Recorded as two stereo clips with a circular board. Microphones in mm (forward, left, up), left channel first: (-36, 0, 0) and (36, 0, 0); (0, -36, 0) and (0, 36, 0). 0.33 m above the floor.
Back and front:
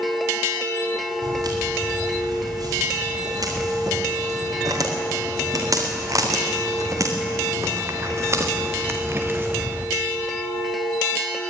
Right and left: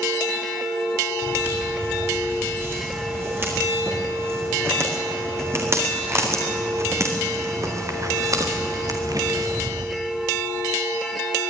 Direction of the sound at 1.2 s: 30° left.